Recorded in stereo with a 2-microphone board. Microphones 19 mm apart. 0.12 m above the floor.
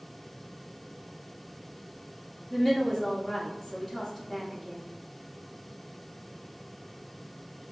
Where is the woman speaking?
10° left (ahead or behind), 1.9 m.